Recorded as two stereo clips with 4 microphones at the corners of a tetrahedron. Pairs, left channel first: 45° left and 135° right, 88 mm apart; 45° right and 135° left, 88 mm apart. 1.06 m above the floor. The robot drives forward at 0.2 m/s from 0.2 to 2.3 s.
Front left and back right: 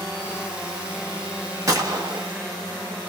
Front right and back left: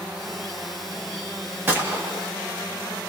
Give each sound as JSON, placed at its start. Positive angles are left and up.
{"t": 1.7, "sound": "a gunshot", "azimuth_deg": -165, "distance_m": 0.9}